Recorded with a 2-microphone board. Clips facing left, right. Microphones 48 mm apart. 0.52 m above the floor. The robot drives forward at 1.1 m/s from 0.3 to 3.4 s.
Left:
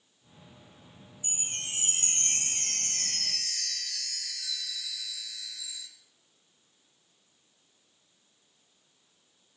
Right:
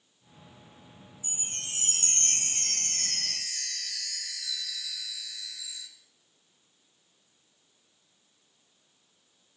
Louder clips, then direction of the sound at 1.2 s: Left 2 dB; 50° left (ahead or behind).